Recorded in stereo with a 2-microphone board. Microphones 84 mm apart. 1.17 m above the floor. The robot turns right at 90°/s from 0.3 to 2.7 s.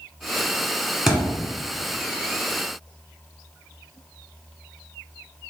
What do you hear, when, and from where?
1.1 s a thud: 10° right, 1.2 m; by 1.4 s 25° left, 1.2 m